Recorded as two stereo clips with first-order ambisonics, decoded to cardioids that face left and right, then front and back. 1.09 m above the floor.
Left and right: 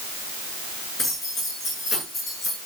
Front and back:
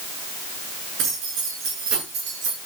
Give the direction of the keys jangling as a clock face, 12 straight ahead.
7 o'clock.